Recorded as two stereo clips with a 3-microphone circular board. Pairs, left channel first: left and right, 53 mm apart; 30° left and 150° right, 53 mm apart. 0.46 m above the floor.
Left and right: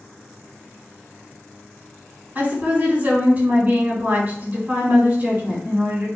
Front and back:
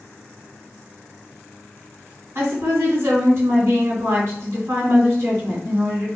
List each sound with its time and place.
2.4 s a woman speaking: 140° right, 2.0 m